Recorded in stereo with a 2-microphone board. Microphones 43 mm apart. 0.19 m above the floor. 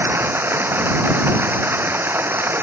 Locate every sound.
0.0 s running water: 60° right (ahead or behind)